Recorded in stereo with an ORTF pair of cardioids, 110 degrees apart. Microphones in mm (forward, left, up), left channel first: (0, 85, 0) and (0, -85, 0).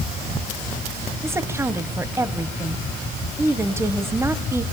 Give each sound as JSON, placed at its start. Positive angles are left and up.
{"t": 1.2, "sound": "a woman speaking", "azimuth_deg": -15, "distance_m": 1.2}